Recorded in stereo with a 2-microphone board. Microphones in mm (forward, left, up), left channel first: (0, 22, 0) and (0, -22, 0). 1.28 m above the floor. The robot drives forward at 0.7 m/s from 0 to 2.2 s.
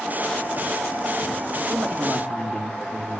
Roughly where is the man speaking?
Right.